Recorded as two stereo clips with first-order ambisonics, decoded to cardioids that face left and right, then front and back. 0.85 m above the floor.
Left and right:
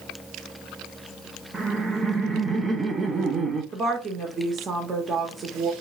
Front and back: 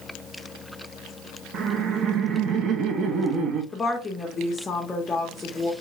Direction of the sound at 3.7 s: 55° right.